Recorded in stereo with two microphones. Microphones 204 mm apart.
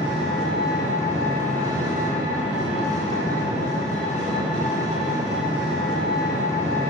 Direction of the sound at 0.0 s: 35° left (ahead or behind).